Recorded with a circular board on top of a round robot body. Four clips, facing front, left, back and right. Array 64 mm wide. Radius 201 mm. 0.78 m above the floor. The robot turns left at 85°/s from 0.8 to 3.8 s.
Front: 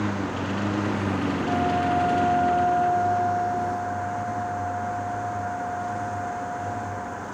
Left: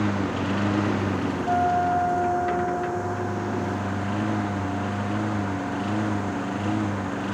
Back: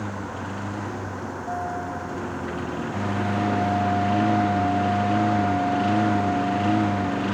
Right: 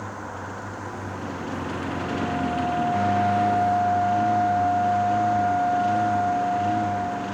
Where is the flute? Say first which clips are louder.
Left 10 dB, front 5 dB; 95° left; by 7.3 s 105° right.